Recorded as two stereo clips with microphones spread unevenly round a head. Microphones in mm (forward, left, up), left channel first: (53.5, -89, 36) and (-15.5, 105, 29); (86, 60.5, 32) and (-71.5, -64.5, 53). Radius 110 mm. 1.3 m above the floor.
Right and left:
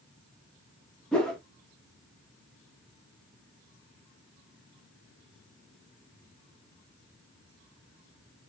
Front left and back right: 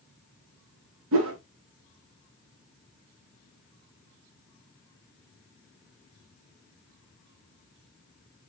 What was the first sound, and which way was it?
A whoosh, 155° right.